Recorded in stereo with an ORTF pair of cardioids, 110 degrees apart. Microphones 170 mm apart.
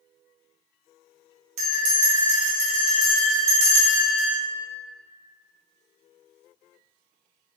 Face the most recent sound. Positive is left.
turn(degrees=-40)